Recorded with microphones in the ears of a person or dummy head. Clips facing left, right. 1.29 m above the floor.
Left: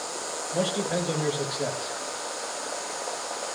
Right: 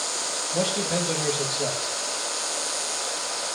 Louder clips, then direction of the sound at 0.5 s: Even; 5° left (ahead or behind).